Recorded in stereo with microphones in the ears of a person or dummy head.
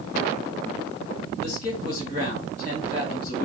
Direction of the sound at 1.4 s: 40° left (ahead or behind).